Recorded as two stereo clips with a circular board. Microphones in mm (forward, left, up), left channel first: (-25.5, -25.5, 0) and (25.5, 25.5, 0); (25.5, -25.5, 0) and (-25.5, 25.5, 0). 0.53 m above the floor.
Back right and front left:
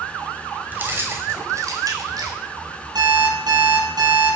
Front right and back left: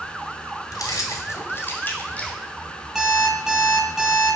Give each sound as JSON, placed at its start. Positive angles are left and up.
{"t": 0.7, "sound": "keys jangling", "azimuth_deg": -20, "distance_m": 1.9}
{"t": 3.0, "sound": "an alarm clock", "azimuth_deg": 50, "distance_m": 6.0}